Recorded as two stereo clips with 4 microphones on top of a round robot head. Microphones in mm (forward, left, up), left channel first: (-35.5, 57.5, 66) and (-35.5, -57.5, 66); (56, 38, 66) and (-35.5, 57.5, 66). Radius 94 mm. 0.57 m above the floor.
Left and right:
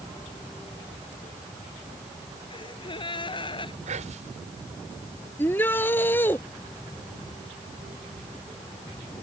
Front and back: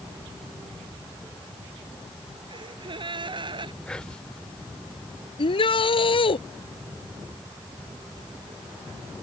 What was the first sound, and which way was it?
A gasp, 135° left.